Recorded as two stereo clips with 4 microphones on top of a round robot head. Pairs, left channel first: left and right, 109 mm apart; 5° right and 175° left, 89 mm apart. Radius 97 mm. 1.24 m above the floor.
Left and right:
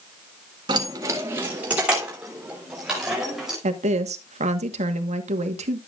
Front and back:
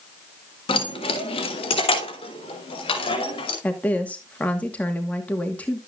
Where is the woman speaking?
85° right, 1.4 m.